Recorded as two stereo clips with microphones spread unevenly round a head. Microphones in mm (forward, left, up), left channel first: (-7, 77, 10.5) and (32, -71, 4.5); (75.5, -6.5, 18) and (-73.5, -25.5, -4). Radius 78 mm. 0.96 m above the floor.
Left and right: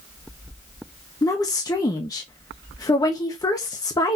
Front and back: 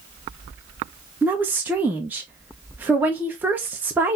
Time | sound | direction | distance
1.2 | a woman speaking | 145° left | 0.8 m